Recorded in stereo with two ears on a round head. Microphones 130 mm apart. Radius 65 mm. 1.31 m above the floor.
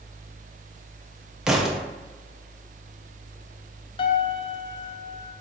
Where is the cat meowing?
I don't hear a cat meowing.